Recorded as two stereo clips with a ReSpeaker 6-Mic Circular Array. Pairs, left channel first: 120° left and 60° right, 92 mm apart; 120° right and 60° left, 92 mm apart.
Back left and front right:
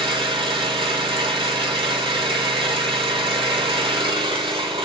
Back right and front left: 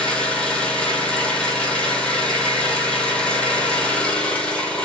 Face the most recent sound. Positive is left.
turn(degrees=-40)